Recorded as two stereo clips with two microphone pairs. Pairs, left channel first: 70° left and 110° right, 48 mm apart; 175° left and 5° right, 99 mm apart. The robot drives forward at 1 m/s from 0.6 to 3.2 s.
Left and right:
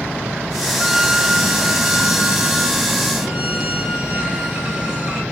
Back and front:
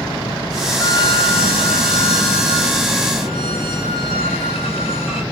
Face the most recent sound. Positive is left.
turn(degrees=180)